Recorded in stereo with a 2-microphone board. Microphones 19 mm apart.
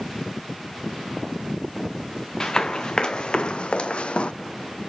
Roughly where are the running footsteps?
Left.